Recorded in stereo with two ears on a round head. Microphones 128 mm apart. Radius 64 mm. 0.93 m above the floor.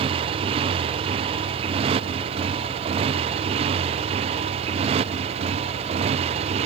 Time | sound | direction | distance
0.0 | a motorcycle | 40° right (ahead or behind) | ?